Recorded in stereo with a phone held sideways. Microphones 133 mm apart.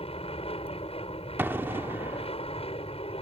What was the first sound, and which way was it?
An aircraft, 50° left (ahead or behind).